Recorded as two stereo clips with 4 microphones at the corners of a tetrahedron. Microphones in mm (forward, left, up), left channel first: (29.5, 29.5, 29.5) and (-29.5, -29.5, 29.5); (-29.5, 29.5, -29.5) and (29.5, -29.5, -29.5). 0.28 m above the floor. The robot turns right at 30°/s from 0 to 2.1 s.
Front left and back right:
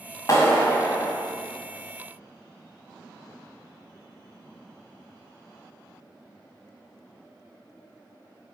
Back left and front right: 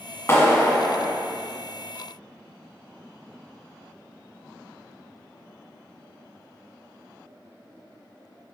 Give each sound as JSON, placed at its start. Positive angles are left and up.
{"t": 0.3, "sound": "a clap", "azimuth_deg": 85, "distance_m": 1.5}